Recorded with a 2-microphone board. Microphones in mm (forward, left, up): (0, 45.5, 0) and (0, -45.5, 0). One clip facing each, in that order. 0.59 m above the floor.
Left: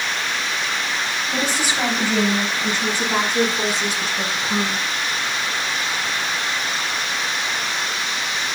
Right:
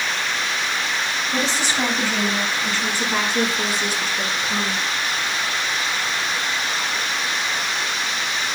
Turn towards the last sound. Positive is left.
turn(degrees=25)  # may be behind; listen again after turning